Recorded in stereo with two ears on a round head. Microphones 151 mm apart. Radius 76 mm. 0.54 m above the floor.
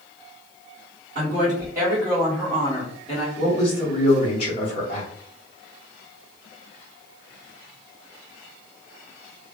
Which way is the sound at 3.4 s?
35° left (ahead or behind).